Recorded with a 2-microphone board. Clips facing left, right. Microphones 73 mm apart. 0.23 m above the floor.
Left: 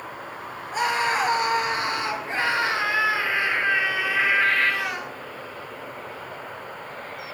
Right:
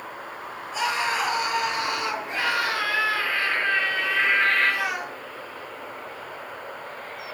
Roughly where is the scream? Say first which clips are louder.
Left 2 dB; left.